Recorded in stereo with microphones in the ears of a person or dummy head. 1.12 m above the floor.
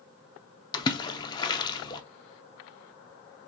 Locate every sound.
0.7 s a splash: 25° left (ahead or behind), 0.6 m